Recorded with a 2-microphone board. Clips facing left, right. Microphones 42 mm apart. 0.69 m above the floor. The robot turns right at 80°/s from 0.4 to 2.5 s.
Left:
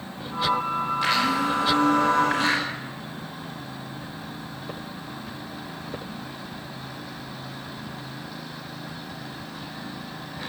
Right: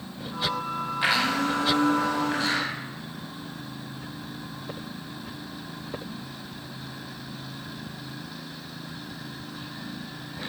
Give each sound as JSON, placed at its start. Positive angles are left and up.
{"t": 1.0, "sound": "a blender", "azimuth_deg": -15, "distance_m": 3.5}